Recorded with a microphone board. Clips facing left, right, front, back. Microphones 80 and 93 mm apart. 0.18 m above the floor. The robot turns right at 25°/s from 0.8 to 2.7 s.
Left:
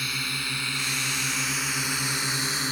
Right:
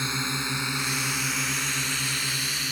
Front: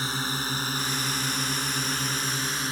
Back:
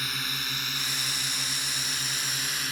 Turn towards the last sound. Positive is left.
turn(degrees=45)